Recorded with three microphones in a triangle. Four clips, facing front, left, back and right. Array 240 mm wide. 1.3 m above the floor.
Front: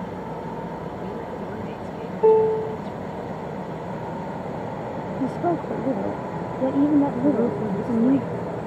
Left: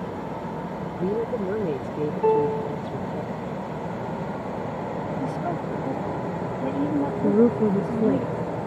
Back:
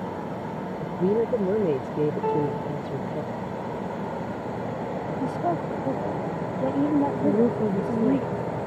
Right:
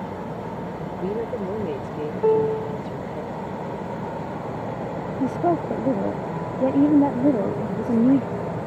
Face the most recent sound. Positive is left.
turn(degrees=105)